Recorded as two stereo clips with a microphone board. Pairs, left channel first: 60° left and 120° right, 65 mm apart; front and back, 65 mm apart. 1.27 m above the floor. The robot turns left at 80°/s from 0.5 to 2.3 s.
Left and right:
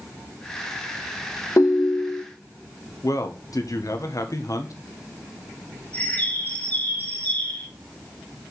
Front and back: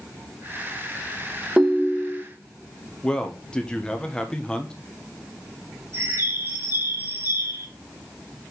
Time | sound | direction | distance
1.6 | a ringtone | 100° left | 0.7 m
3.0 | a man speaking | 75° left | 1.1 m
5.9 | a bird | 125° left | 4.5 m